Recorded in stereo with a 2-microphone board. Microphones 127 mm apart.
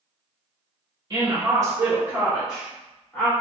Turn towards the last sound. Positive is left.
turn(degrees=15)  # may be behind; listen again after turning